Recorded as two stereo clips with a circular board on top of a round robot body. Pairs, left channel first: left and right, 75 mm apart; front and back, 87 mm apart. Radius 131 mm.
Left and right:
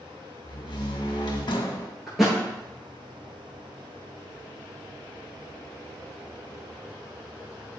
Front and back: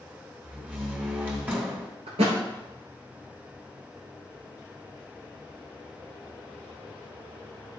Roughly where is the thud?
Behind.